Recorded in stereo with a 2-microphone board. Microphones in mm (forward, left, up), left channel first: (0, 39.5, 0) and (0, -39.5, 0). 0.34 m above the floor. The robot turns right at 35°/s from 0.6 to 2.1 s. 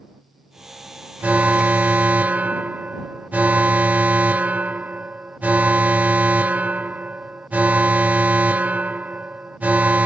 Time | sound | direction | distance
1.2 | an alarm | 20° right (ahead or behind) | ?